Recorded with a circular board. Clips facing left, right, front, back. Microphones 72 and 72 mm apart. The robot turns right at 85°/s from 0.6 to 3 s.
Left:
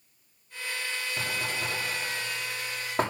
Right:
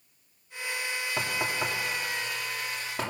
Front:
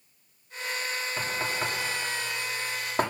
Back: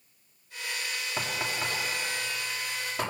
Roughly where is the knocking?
Behind right.